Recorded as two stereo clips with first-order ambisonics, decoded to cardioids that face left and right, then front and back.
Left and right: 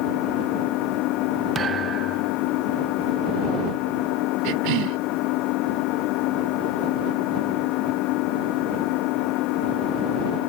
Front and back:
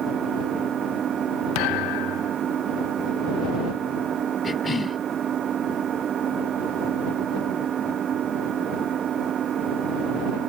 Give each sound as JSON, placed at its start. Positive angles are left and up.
{"t": 0.0, "sound": "an engine running", "azimuth_deg": 120}
{"t": 1.6, "sound": "a thud", "azimuth_deg": -20}
{"t": 4.4, "sound": "a cough", "azimuth_deg": -75}